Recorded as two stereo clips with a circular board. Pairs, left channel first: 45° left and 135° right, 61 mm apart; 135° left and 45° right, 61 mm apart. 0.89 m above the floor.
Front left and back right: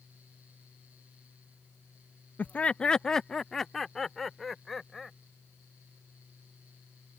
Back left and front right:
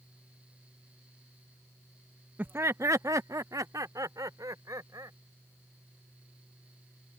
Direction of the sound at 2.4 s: 5° right.